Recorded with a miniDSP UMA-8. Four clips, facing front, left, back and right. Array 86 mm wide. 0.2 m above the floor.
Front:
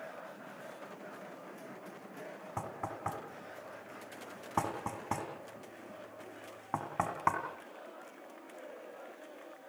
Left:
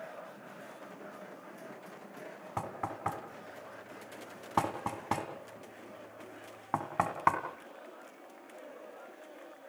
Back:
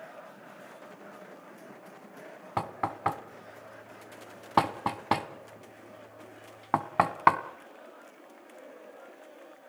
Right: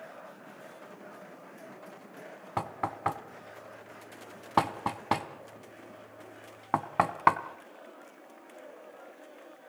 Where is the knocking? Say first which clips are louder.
Right 4 dB, back 9 dB; 150° right, 1.6 m.